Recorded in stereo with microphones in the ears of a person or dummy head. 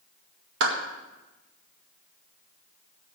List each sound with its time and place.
0.6 s a clap: 75° right (ahead or behind), 1.8 m